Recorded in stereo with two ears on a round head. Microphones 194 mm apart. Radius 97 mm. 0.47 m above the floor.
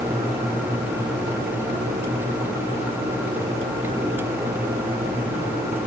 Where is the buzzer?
No buzzer in this recording.